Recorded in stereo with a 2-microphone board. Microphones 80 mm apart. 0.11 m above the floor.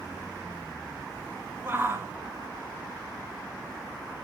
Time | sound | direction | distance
1.6 | a shout | 30° right (ahead or behind) | 1.4 m